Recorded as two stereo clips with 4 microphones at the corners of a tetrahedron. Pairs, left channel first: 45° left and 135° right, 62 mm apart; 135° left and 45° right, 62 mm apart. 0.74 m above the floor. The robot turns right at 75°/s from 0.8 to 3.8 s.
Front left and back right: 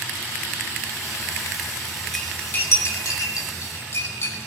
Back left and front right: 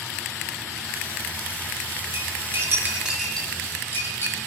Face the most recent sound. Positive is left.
turn(degrees=85)